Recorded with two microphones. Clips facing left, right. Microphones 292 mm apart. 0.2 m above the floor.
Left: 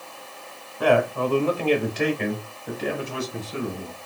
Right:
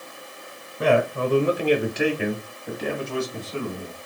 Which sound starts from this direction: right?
A man speaking, at 0.8 s.